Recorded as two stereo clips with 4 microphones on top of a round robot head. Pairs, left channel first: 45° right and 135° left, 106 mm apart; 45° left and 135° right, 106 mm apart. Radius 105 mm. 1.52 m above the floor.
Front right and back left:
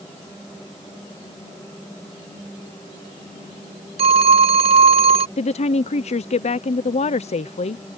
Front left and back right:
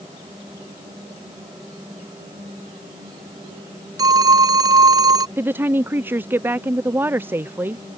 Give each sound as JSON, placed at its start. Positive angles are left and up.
{"t": 4.0, "sound": "a phone ringing", "azimuth_deg": 170}
{"t": 5.4, "sound": "a woman speaking", "azimuth_deg": -65}